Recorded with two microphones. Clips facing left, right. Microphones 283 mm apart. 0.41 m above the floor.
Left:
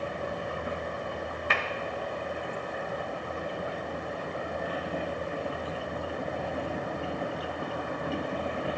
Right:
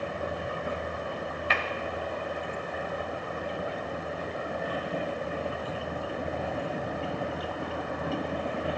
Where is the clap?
50° left (ahead or behind), 1.7 m.